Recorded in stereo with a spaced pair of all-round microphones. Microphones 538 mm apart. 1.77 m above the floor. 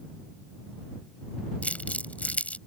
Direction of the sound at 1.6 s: 5° left (ahead or behind).